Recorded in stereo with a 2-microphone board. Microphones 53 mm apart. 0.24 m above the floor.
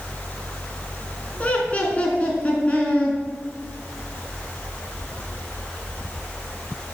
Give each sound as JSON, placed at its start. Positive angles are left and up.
{"t": 1.4, "sound": "laughter", "side_deg": 25, "distance_m": 3.5}